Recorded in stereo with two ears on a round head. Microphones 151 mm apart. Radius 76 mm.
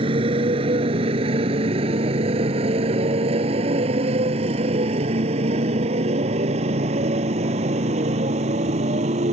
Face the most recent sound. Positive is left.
turn(degrees=-40)  # may be behind; listen again after turning